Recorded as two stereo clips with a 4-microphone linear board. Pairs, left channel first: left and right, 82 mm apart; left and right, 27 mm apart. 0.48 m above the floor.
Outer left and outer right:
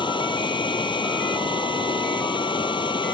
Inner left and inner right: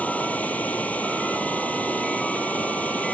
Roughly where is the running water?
Left.